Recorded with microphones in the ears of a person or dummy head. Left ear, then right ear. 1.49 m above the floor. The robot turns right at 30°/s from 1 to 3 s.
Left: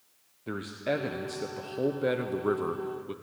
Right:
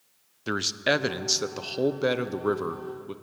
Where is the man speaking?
60° right, 0.6 m; by 3.1 s straight ahead, 0.6 m.